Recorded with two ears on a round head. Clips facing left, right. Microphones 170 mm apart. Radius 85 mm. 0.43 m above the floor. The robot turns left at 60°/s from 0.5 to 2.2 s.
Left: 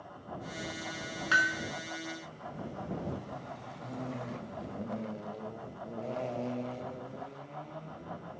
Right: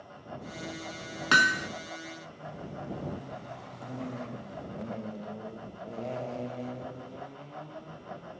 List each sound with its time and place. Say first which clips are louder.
1.3 s hammering: right 6 dB; 65° right (ahead or behind); by 1.7 s 85° right